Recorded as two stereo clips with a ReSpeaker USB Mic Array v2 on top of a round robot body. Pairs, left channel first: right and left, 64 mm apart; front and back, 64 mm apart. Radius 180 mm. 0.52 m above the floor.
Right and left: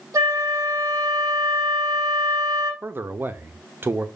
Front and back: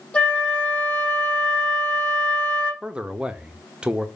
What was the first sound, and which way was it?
A flute, 65° left.